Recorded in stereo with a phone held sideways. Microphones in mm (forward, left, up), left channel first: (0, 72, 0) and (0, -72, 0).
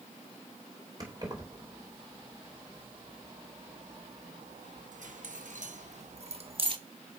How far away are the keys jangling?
About 3 m.